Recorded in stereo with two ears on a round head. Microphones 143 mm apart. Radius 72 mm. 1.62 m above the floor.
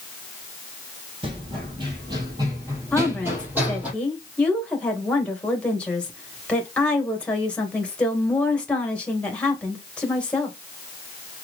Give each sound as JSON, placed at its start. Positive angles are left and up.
{"t": 1.2, "sound": "running footsteps", "side_deg": -35, "distance_m": 3.0}
{"t": 2.9, "sound": "a woman speaking", "side_deg": 10, "distance_m": 2.0}